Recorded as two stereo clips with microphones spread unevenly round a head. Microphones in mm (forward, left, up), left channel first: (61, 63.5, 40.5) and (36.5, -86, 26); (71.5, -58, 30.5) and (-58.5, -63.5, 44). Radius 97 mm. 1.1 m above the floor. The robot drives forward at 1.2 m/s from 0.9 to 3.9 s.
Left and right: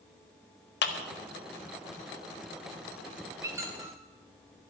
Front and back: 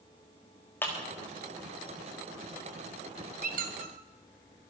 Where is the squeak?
175° right, 1.0 m.